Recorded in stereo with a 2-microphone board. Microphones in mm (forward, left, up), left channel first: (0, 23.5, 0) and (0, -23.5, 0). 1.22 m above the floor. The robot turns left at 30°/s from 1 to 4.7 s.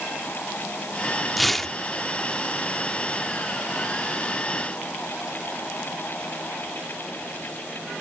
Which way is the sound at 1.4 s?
Centre (ahead or behind).